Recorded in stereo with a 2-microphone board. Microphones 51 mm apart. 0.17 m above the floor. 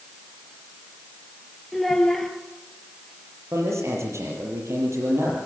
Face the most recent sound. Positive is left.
turn(degrees=-70)  # may be behind; listen again after turning